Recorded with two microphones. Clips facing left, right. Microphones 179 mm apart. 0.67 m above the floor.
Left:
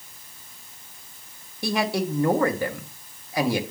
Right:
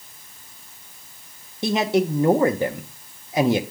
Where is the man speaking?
20° right (ahead or behind), 0.6 m.